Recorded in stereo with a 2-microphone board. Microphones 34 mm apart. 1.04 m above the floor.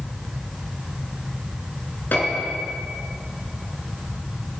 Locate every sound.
2.1 s a piano: 70° left (ahead or behind), 5 m